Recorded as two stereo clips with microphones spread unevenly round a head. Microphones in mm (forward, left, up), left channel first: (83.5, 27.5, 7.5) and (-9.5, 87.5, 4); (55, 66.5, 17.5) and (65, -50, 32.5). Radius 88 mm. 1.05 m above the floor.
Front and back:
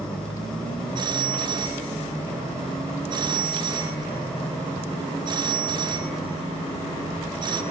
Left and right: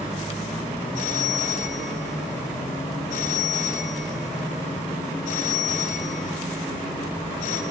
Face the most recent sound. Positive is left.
turn(degrees=100)